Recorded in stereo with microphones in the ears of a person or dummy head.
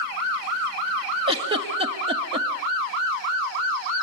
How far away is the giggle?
About 1.7 m.